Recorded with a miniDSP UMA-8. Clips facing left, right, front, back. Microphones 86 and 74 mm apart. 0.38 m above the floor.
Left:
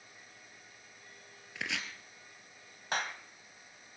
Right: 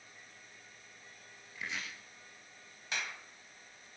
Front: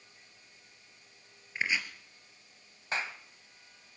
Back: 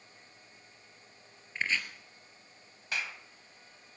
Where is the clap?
55° left, 1.9 m.